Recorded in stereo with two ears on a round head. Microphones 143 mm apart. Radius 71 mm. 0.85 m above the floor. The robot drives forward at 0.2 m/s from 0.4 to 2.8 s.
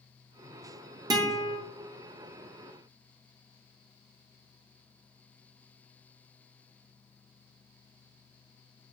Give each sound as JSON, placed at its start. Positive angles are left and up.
{"t": 1.1, "sound": "a guitar", "side_deg": -25, "distance_m": 0.5}